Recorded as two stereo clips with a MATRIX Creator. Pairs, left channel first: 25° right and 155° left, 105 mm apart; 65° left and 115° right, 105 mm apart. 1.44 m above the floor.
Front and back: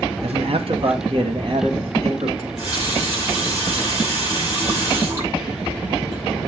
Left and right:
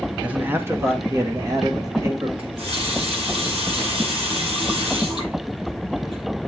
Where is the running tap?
140° right, 5.5 m.